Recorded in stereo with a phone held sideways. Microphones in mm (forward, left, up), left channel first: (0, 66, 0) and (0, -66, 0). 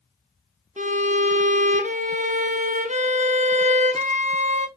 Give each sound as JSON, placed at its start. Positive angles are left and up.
{"t": 0.8, "sound": "a violin", "side_deg": -65, "distance_m": 0.6}